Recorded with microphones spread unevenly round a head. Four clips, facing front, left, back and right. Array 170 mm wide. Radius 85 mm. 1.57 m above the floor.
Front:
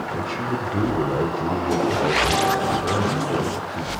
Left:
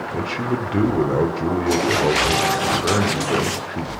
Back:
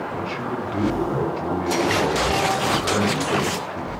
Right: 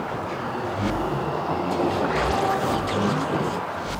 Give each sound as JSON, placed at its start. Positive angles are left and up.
{"t": 0.1, "sound": "a man speaking", "azimuth_deg": 85, "distance_m": 5.5}